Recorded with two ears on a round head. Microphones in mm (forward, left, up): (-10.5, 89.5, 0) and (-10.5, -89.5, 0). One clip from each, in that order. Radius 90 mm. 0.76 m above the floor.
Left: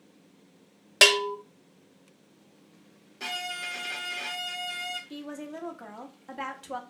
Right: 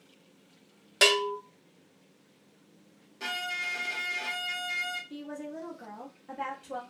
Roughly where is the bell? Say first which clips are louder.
Left 4 dB; left.